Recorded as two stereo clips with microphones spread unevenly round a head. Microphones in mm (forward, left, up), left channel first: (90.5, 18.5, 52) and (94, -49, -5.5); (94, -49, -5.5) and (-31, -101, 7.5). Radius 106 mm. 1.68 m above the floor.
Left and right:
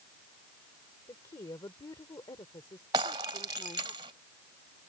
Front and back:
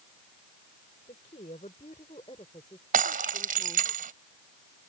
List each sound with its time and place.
1.1 s a woman speaking: 80° left; by 3.9 s 100° left
2.9 s breaking glass: 145° right